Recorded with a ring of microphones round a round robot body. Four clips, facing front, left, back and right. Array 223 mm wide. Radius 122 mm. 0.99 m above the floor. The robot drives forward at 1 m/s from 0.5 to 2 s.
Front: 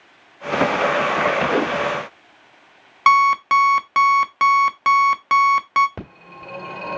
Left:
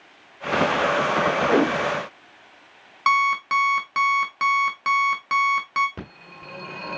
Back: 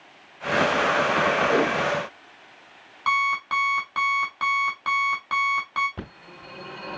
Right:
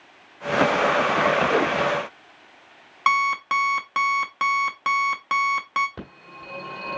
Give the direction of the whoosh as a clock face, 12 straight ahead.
9 o'clock.